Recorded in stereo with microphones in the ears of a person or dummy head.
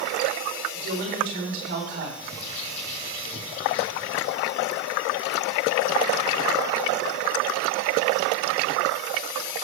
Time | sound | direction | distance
0.7 | a woman speaking | 45° right (ahead or behind) | 4 m
2.2 | a bird | 40° left (ahead or behind) | 2.5 m